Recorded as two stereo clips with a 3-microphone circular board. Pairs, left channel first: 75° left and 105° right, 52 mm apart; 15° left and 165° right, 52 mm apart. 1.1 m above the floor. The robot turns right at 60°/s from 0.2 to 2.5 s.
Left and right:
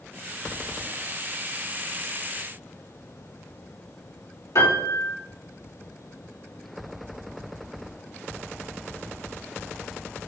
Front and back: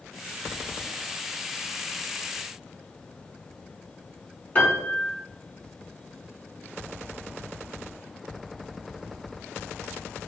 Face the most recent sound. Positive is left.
turn(degrees=70)